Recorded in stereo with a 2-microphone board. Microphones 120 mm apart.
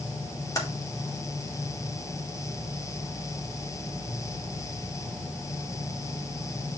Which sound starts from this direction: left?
Typing on a keyboard, at 0.6 s.